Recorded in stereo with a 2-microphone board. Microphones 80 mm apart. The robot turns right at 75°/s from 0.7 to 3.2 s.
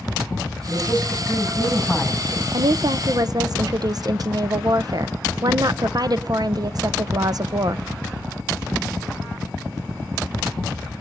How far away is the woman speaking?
About 0.5 m.